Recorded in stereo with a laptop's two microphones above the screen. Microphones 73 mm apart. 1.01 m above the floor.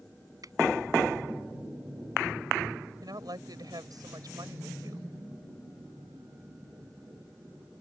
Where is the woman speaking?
65° right (ahead or behind).